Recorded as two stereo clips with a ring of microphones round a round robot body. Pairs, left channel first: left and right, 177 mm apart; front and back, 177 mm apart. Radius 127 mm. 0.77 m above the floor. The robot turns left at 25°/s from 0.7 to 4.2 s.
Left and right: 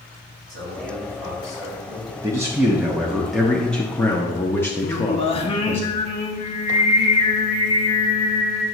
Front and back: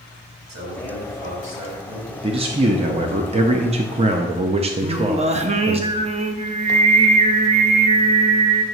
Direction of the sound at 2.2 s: 150° right.